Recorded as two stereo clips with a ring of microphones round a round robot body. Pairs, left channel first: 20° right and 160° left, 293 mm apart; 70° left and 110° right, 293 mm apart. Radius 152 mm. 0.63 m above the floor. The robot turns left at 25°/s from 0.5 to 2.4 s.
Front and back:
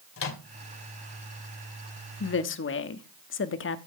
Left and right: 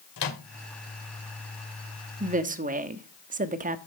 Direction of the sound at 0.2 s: 25° left.